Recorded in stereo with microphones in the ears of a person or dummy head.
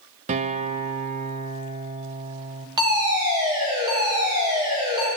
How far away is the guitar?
About 0.5 m.